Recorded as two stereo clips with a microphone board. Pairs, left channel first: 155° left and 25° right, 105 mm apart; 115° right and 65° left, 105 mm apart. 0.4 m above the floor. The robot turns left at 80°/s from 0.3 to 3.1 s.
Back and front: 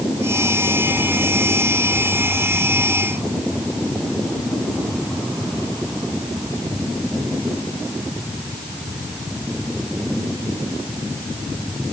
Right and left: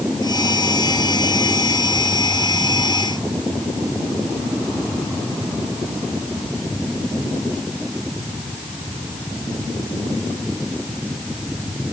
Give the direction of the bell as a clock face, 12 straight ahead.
I don't hear a bell.